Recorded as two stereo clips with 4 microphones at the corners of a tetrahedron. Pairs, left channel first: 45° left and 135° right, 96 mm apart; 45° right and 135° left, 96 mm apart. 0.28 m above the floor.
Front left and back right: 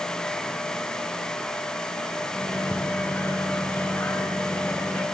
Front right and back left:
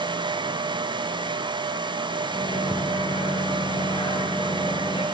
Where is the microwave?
25° right, 3.5 m.